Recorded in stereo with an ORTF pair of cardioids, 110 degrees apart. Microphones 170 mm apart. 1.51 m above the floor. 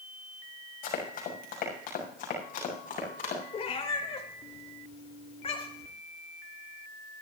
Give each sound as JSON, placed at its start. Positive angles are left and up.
{"t": 0.8, "sound": "running footsteps", "azimuth_deg": 60, "distance_m": 6.5}
{"t": 3.5, "sound": "a cat meowing", "azimuth_deg": 40, "distance_m": 3.5}